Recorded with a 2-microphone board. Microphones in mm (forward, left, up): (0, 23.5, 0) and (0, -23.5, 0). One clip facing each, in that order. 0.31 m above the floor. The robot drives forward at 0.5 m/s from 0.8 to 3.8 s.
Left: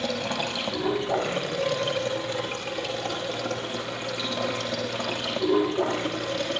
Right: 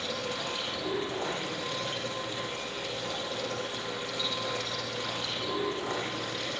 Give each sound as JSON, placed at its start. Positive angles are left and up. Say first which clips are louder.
{"t": 0.0, "sound": "running water", "louder": "left 6 dB", "side_deg": 85, "distance_m": 5.0}